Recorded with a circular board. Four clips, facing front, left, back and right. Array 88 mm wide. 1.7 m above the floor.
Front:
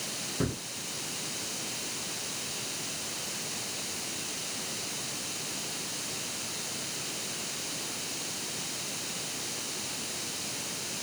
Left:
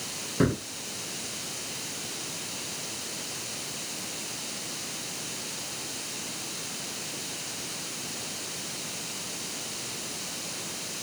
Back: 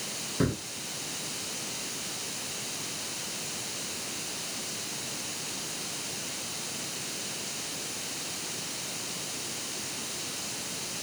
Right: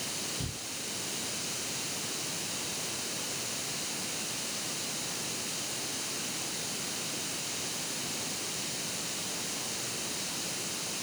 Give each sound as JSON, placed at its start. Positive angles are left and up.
{"t": 0.4, "sound": "a gunshot", "azimuth_deg": 105}